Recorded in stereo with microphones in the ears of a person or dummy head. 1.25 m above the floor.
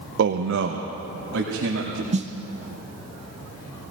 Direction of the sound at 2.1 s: 30° right (ahead or behind).